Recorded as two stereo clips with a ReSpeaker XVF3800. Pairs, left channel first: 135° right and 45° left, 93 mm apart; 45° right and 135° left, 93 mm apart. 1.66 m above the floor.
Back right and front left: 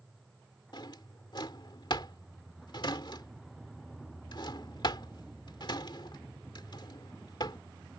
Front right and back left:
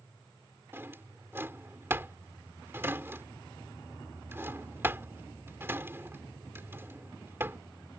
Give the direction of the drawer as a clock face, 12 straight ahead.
5 o'clock.